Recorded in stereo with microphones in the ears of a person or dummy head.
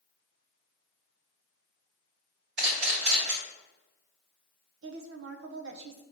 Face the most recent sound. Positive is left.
turn(degrees=-75)  # may be behind; listen again after turning